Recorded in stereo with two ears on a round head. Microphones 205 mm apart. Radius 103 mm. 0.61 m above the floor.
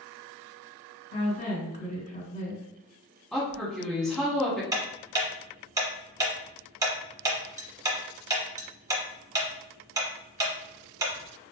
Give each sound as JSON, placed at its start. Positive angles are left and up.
{"t": 1.1, "sound": "a woman speaking", "side_deg": 35, "distance_m": 1.7}
{"t": 3.3, "sound": "a woman speaking", "side_deg": 0, "distance_m": 0.9}
{"t": 4.7, "sound": "ticking", "side_deg": -15, "distance_m": 0.6}